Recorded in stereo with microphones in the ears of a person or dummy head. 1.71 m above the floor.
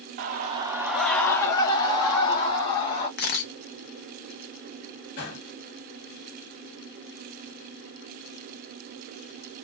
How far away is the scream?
About 0.6 m.